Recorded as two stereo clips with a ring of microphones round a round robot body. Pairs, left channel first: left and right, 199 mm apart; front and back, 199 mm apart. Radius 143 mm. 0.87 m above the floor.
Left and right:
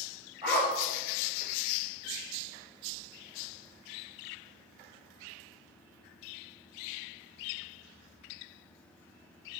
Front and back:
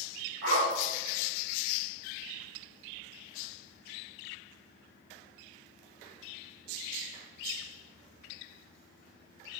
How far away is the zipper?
About 3.5 m.